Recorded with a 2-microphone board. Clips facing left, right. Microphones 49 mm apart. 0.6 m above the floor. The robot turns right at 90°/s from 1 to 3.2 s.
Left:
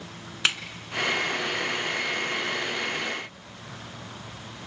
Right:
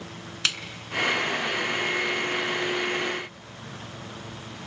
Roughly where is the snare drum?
Left.